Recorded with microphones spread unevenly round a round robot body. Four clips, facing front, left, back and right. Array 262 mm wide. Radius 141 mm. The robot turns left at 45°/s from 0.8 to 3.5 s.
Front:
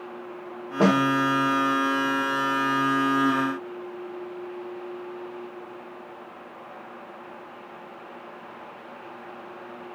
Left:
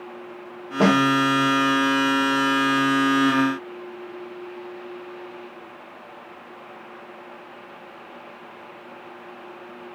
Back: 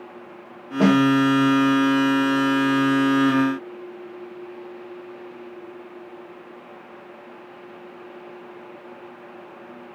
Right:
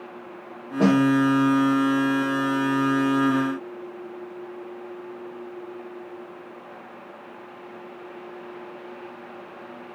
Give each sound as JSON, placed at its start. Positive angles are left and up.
{"t": 0.8, "sound": "a snare drum", "azimuth_deg": 175, "distance_m": 1.1}